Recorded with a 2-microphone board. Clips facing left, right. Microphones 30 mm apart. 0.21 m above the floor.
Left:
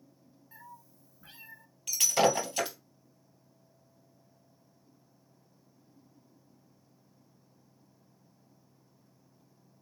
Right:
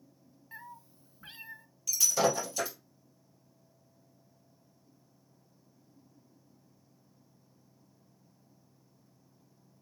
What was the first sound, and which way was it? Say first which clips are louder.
A cat meowing: right 4 dB; 40° right (ahead or behind).